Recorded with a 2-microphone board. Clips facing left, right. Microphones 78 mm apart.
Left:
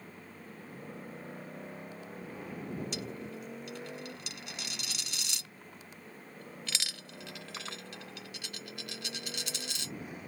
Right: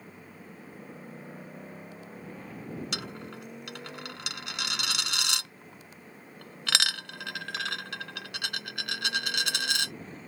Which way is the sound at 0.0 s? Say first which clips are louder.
Right 1 dB; centre (ahead or behind).